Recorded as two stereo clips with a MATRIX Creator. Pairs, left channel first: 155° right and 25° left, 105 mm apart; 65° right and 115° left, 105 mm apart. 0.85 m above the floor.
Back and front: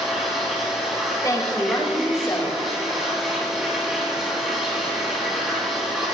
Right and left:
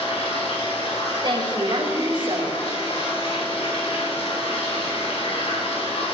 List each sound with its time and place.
0.0 s running water: 65° right, 4 m
1.2 s a woman speaking: 145° left, 3 m